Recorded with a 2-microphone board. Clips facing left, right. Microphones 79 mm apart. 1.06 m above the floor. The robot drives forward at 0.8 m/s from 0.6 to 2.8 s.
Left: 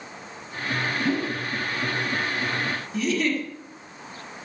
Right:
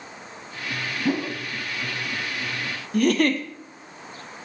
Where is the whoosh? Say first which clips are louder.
Right 3 dB; 20° right (ahead or behind), 1.5 m; by 1.4 s 15° right (ahead or behind), 1.7 m.